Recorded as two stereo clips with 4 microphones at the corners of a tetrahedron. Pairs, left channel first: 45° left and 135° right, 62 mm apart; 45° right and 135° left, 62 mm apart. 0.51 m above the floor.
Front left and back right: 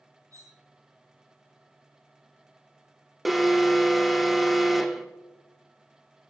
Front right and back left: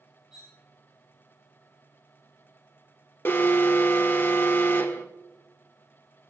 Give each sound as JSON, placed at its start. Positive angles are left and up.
{"t": 0.3, "sound": "cutlery clinking", "azimuth_deg": -145, "distance_m": 5.0}
{"t": 3.2, "sound": "an alarm", "azimuth_deg": -50, "distance_m": 1.2}